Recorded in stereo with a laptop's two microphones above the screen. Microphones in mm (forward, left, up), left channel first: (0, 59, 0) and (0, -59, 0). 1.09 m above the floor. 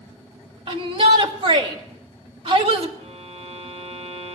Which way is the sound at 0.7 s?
50° right (ahead or behind).